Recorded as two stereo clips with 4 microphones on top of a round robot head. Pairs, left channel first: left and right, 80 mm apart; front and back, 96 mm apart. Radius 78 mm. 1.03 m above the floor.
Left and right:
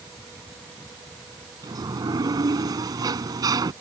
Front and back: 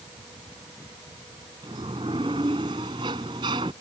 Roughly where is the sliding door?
Behind right.